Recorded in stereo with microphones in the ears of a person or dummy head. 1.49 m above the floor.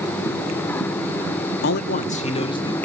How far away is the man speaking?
About 0.8 m.